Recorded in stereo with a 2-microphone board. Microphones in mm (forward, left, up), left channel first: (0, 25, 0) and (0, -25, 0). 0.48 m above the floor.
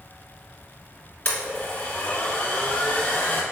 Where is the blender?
35° left (ahead or behind), 1.4 m.